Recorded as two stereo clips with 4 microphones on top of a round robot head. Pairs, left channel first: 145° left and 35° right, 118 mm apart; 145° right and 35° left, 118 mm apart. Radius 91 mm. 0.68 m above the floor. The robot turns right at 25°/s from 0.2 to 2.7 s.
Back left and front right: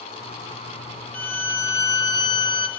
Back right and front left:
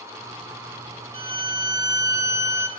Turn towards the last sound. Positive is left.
turn(degrees=105)